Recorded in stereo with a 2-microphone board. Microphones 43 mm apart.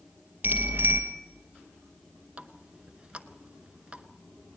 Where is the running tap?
25° right (ahead or behind), 0.8 m.